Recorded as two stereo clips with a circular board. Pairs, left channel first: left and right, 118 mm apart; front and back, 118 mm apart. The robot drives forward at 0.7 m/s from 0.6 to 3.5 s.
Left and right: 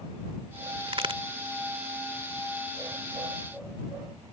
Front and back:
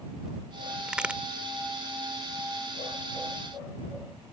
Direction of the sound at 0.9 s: 95° right.